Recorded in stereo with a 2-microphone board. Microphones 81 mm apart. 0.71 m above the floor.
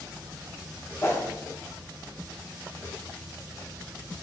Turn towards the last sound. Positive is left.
turn(degrees=30)  # may be behind; listen again after turning